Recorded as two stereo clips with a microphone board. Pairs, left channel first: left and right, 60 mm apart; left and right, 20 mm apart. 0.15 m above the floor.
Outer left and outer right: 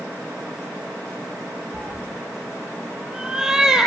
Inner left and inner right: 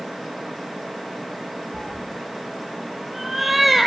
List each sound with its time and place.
1.7 s a cat meowing: 10° right (ahead or behind), 1.3 m